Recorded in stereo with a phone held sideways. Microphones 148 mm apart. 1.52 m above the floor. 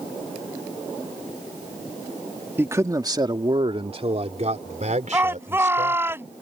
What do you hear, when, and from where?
2.6 s a man speaking: 15° right (ahead or behind); by 6.1 s 60° right (ahead or behind)
5.1 s a shout: 15° right (ahead or behind)